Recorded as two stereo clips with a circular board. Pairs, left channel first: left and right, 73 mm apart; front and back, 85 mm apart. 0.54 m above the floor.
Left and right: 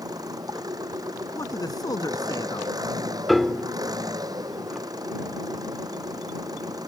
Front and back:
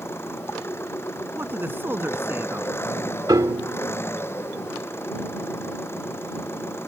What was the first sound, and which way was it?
An engine running, 60° right.